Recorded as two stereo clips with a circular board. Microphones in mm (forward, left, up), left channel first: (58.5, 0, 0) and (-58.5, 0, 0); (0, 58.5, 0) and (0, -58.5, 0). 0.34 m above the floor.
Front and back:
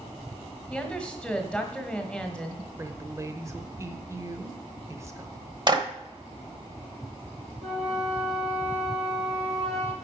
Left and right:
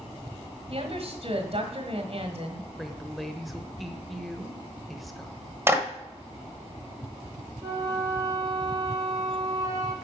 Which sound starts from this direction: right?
A woman speaking, at 0.7 s.